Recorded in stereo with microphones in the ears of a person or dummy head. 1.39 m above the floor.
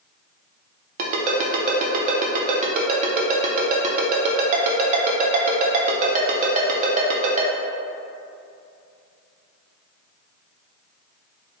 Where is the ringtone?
40° right (ahead or behind), 0.5 m.